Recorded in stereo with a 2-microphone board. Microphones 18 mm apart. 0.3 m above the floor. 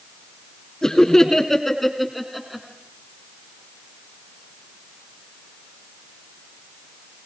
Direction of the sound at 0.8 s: 35° left (ahead or behind).